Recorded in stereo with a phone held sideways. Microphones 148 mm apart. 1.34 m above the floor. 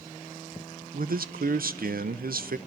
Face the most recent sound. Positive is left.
turn(degrees=-80)